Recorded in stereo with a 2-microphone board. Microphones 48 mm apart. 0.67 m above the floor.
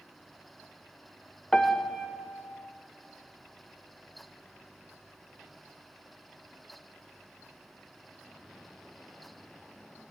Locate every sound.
1.5 s a piano: 15° left (ahead or behind), 0.5 m